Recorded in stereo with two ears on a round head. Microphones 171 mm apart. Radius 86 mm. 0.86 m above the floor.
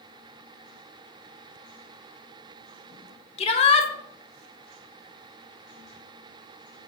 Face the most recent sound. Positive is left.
turn(degrees=30)  # may be behind; listen again after turning